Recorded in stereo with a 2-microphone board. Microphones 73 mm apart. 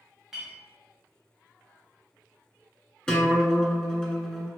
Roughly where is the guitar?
Centre.